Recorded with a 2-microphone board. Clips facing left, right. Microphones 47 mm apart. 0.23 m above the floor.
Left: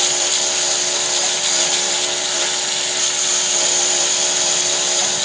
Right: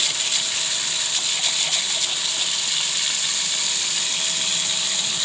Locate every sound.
0.0 s a lawn mower: 85° left; by 5.2 s 70° left (ahead or behind)